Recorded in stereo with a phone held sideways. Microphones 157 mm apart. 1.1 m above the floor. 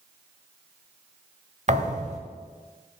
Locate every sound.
1.7 s a thud: 45° right (ahead or behind), 1.2 m